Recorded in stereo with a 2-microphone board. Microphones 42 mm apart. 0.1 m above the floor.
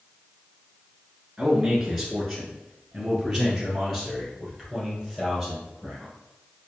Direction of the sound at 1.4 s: 10° right (ahead or behind).